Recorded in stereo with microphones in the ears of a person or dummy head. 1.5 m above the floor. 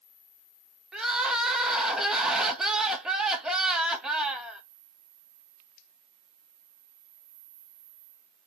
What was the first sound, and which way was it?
Crying, 5° right (ahead or behind).